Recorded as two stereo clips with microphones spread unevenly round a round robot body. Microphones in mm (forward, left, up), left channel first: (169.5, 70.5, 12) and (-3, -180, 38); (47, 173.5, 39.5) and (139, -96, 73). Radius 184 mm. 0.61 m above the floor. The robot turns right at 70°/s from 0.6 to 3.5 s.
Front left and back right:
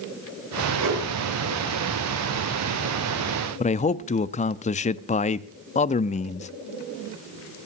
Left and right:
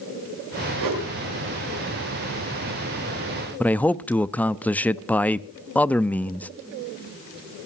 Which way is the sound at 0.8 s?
110° right.